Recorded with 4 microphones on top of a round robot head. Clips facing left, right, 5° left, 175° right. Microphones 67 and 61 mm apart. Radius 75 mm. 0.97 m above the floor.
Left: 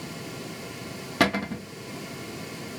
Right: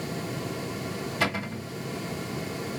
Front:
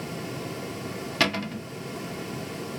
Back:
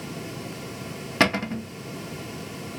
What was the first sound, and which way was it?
A cupboard door, 125° left.